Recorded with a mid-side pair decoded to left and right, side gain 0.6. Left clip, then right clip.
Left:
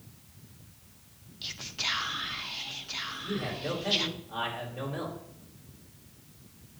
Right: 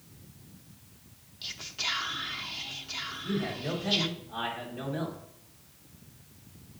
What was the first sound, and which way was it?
Whispering, 10° left.